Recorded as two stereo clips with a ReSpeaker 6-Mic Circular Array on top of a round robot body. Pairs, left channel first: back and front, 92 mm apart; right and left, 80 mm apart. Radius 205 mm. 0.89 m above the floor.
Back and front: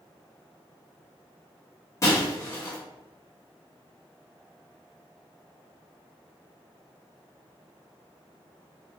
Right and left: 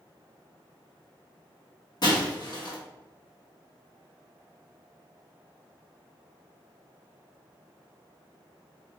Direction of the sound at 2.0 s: 125° right.